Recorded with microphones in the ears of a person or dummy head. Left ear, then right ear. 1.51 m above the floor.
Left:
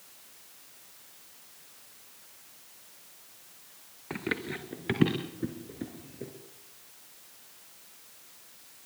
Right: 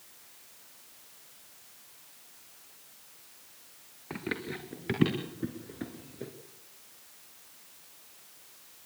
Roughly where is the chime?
I don't hear a chime.